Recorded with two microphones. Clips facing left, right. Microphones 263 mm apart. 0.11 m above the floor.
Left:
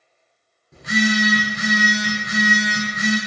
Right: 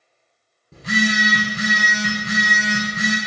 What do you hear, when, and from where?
0.7 s a phone buzzing: 35° right (ahead or behind), 1.0 m